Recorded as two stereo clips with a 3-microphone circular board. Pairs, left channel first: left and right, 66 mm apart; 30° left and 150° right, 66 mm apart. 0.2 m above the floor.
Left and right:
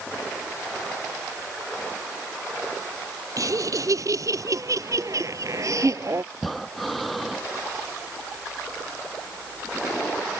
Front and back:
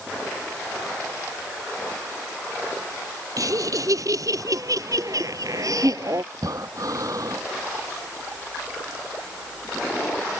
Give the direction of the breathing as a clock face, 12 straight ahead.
6 o'clock.